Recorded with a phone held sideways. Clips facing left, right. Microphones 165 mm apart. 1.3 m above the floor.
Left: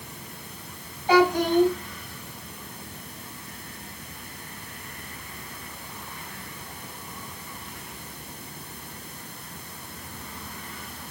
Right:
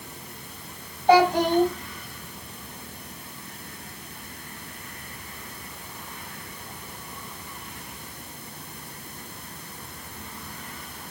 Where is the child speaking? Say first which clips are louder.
Right 2 dB; 50° right (ahead or behind), 4.5 m.